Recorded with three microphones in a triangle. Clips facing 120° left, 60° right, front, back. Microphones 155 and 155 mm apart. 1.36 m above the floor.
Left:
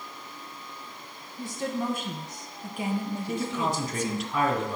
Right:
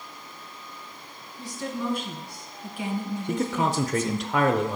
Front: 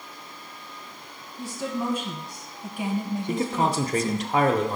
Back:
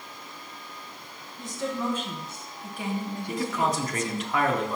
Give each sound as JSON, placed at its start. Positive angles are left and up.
{"t": 1.4, "sound": "a woman speaking", "azimuth_deg": 80, "distance_m": 1.8}
{"t": 3.3, "sound": "a man speaking", "azimuth_deg": -60, "distance_m": 0.5}